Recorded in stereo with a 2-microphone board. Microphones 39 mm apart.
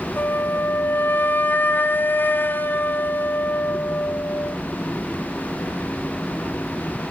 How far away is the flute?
About 1.2 m.